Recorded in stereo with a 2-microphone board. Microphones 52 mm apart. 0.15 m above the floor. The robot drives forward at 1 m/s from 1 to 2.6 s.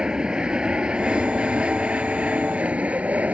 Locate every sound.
0.0 s an aircraft: 15° right (ahead or behind); by 3.4 s 30° right (ahead or behind)